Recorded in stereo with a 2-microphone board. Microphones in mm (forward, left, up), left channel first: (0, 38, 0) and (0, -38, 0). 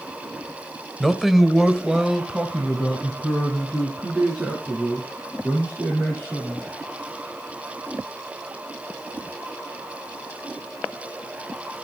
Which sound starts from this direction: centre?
A man speaking, at 1.0 s.